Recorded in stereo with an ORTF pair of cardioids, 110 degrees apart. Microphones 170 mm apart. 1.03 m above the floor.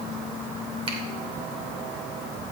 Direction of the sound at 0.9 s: 35° right.